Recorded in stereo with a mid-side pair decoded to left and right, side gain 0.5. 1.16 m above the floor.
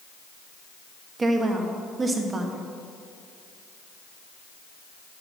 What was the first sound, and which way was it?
A woman speaking, 30° right.